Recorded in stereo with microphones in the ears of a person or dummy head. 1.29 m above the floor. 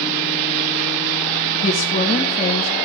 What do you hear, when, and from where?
1.6 s a woman speaking: 40° left (ahead or behind), 1.5 m